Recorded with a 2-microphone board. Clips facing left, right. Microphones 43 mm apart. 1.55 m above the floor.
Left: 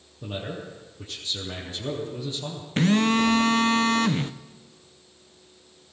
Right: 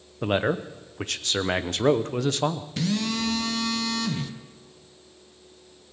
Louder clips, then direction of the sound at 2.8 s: Left 8 dB; 40° left (ahead or behind).